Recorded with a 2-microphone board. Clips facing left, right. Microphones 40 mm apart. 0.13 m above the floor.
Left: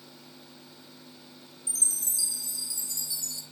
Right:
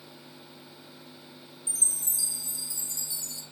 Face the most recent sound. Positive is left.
turn(degrees=-35)  # may be behind; listen again after turning